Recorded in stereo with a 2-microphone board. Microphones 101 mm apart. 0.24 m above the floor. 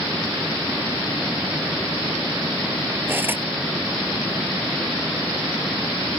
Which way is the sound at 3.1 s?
20° right (ahead or behind).